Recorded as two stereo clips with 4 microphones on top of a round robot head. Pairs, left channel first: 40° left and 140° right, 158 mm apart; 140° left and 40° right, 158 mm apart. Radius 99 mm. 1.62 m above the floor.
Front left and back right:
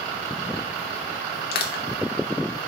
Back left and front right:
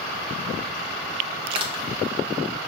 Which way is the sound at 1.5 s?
15° left.